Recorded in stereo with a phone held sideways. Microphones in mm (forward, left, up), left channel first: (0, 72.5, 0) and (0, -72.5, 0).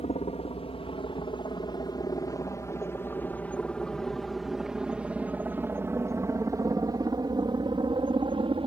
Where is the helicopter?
45° left (ahead or behind); by 8.7 s 35° right (ahead or behind).